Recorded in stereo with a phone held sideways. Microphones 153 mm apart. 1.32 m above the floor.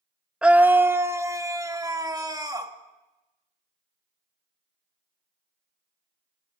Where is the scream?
5° right (ahead or behind), 0.6 m; by 2.7 s 25° right (ahead or behind), 2.0 m.